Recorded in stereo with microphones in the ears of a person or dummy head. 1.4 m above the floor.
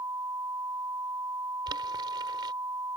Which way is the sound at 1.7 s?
25° right (ahead or behind).